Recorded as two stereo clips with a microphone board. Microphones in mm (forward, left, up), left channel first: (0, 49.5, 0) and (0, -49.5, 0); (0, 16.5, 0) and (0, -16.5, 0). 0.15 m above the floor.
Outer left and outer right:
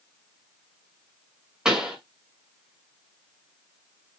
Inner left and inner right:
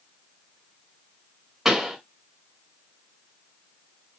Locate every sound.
1.6 s a pop: 5° right (ahead or behind), 1.8 m